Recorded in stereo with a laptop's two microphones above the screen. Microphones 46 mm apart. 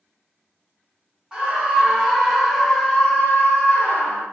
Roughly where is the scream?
Centre.